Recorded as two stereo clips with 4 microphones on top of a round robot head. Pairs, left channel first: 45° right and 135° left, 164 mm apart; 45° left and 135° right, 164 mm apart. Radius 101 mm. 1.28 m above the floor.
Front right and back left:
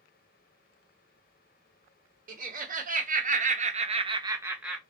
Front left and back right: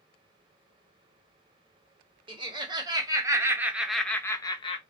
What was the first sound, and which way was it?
Laughter, 165° left.